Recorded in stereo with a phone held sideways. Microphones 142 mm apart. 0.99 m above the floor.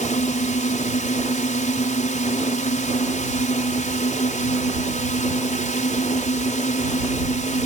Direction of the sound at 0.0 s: 60° left (ahead or behind).